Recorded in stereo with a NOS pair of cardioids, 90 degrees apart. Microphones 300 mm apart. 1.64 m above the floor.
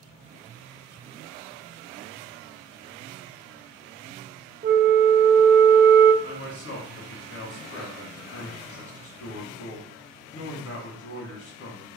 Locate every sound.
4.6 s a flute: 30° right, 0.6 m
6.2 s a man speaking: 45° left, 1.7 m